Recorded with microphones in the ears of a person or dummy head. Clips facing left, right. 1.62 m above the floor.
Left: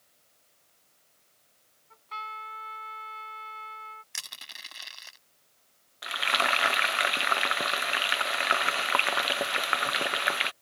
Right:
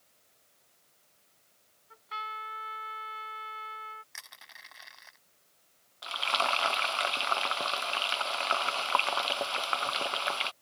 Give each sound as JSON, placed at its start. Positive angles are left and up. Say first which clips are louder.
{"t": 1.9, "sound": "a trumpet", "louder": "even", "side_deg": -10}
{"t": 4.1, "sound": "crushing", "louder": "left 3 dB", "side_deg": 50}
{"t": 6.0, "sound": "frying", "louder": "left 1 dB", "side_deg": 25}